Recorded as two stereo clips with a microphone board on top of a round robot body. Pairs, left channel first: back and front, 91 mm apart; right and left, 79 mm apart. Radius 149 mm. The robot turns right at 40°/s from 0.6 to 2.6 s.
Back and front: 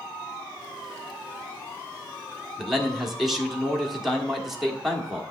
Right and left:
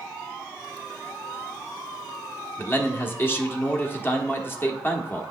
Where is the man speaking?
85° right, 1.5 m.